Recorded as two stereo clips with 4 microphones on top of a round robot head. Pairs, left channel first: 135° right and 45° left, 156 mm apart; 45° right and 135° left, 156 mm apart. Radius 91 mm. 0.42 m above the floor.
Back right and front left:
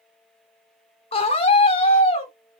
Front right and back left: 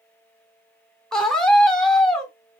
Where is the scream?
130° right, 0.9 m.